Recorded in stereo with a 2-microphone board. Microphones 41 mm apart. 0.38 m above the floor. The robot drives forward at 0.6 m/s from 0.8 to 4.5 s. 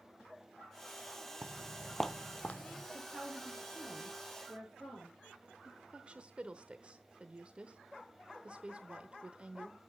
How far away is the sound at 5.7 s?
About 0.9 m.